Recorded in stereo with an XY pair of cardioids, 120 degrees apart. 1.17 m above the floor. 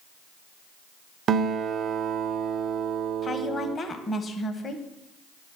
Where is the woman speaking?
35° left, 0.8 m.